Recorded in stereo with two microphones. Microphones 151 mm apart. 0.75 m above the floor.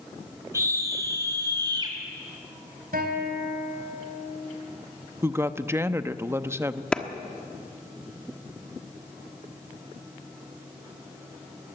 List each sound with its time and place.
0.5 s a scream: 20° right (ahead or behind), 5 m; by 1.9 s 30° right (ahead or behind), 5 m
2.9 s a guitar: 85° right, 4 m
5.2 s a woman speaking: 15° right (ahead or behind), 0.7 m
6.9 s a clap: 5° left (ahead or behind), 1.2 m